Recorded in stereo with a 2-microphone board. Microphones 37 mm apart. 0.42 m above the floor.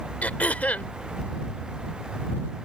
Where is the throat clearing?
45° left (ahead or behind).